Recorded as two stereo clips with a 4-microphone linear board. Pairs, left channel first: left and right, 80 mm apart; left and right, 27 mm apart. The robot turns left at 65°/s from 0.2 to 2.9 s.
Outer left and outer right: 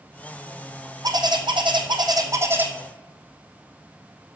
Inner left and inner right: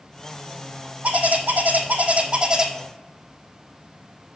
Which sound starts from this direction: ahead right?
A bird, at 1.0 s.